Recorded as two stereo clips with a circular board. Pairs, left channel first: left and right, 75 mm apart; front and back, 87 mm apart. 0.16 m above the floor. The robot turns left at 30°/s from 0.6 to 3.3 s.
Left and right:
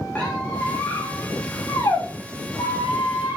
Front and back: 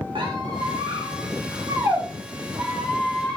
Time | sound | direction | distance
0.1 | a squeak | 165° left | 7 m